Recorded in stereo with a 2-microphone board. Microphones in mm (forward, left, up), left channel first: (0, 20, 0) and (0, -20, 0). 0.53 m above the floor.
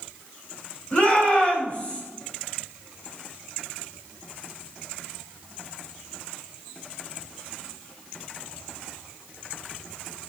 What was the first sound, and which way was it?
A shout, 50° left (ahead or behind).